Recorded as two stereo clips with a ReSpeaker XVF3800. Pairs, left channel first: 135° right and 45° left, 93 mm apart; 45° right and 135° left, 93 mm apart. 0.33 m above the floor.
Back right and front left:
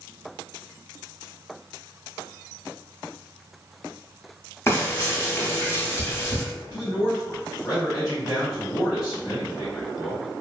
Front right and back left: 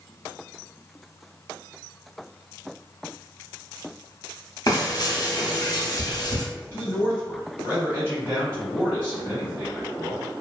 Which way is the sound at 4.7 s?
80° right.